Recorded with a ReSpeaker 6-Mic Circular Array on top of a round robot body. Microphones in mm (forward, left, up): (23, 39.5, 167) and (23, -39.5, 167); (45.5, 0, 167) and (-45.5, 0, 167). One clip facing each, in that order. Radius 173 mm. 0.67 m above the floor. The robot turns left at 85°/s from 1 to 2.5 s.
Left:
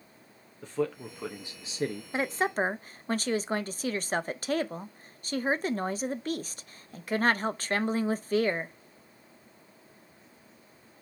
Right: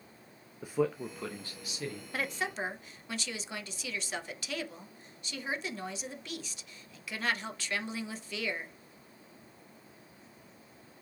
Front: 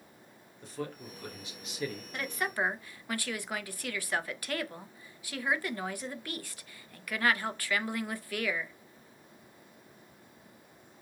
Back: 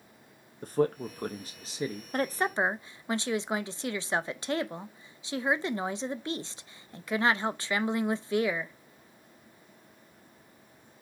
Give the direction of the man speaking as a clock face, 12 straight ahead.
6 o'clock.